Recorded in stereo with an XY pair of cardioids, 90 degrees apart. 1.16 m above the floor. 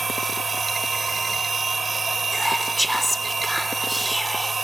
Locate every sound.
0.0 s a machine running: 35° right
2.3 s whispering: straight ahead